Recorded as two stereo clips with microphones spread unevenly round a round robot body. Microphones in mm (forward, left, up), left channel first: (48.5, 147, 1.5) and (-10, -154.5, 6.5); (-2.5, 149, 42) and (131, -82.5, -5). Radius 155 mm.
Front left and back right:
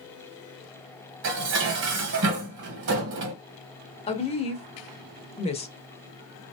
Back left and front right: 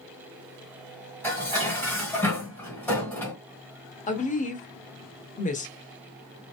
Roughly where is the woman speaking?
Left.